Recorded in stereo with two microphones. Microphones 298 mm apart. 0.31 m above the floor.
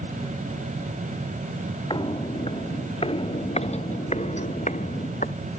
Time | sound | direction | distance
1.9 | footsteps | 15° left (ahead or behind) | ?